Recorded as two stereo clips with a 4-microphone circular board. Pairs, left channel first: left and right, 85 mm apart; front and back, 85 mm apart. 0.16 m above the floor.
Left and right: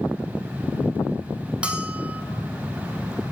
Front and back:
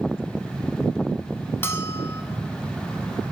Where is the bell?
30° right, 0.7 m.